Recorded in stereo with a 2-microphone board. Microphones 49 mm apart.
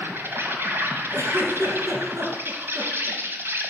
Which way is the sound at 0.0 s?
50° right (ahead or behind).